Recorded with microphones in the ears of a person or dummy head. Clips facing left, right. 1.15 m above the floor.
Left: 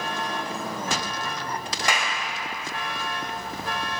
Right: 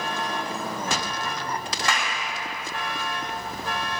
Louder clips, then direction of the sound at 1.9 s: Left 1 dB; 10° left (ahead or behind).